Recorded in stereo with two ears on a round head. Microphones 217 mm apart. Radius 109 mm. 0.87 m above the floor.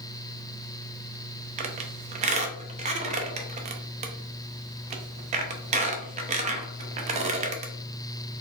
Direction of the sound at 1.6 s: 30° right (ahead or behind).